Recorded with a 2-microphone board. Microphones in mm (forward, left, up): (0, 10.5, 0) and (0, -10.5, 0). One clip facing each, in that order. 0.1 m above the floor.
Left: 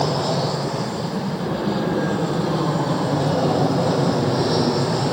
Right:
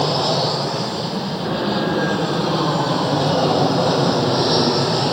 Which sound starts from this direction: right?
An aircraft, at 0.0 s.